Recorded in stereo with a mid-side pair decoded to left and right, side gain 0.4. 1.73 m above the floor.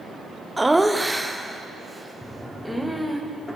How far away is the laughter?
About 0.9 m.